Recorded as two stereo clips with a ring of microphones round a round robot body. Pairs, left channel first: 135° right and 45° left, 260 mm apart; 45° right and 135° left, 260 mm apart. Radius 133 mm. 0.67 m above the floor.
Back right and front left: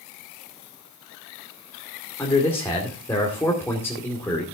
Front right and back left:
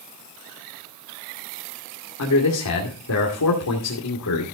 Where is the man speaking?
55° right, 2.5 m.